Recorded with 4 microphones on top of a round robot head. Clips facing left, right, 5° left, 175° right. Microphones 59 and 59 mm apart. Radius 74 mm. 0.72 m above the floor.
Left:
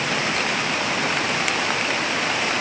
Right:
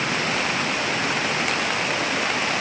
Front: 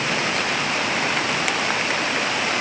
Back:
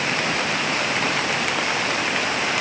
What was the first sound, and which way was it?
Only background noise.